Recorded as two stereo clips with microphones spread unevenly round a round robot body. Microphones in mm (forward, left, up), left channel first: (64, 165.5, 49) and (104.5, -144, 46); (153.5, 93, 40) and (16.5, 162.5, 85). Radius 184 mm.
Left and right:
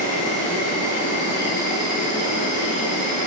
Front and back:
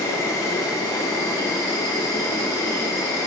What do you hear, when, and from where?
0.0 s an insect: 45° left, 9.5 m